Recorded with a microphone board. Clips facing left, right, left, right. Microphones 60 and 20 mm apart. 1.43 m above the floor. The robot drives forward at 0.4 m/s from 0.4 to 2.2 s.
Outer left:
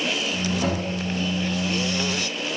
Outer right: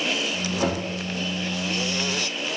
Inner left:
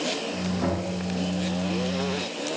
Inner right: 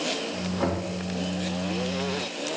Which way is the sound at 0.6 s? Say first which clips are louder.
Outer right 2 dB, inner right 1 dB; 85° right.